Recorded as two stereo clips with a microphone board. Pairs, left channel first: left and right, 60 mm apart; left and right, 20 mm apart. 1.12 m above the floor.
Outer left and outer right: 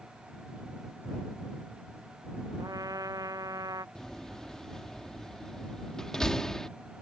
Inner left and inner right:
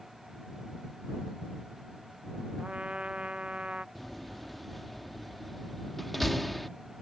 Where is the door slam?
10° left (ahead or behind).